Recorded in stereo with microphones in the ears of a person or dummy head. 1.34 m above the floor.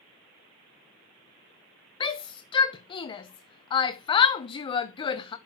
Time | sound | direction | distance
2.0 | a shout | 30° left (ahead or behind) | 0.9 m